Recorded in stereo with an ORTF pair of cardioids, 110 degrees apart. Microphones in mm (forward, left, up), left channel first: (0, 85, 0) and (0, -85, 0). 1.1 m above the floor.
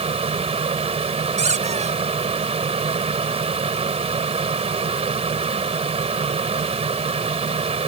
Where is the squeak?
40° right.